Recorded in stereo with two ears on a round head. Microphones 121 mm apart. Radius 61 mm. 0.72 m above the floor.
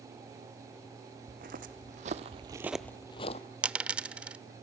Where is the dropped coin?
10° right (ahead or behind), 0.5 m.